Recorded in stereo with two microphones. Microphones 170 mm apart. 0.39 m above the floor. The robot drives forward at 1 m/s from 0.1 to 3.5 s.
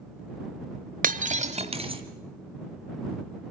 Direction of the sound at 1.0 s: 55° right (ahead or behind).